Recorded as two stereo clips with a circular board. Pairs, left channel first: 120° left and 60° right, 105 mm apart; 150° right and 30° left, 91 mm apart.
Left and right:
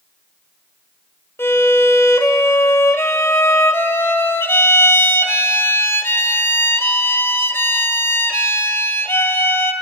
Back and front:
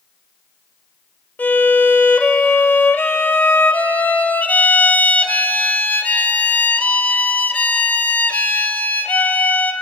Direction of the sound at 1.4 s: 155° left.